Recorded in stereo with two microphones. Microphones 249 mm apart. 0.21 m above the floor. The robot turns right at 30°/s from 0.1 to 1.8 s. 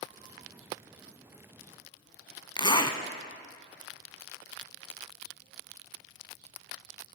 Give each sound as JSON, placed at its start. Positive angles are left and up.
{"t": 2.6, "sound": "a zipper", "side_deg": 20, "distance_m": 0.7}